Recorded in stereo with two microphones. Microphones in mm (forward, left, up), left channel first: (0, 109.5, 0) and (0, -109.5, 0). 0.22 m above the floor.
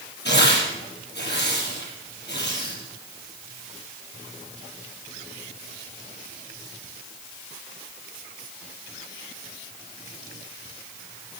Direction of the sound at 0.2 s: 55° left (ahead or behind).